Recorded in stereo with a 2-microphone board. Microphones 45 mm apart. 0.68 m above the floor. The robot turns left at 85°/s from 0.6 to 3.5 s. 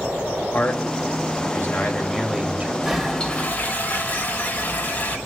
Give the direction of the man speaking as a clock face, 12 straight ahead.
7 o'clock.